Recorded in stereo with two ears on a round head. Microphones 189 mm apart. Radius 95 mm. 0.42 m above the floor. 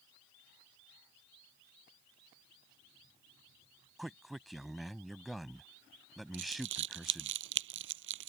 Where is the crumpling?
65° right (ahead or behind).